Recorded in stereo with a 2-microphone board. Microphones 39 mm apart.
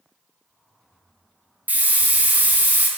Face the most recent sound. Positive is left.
turn(degrees=-45)  # may be behind; listen again after turning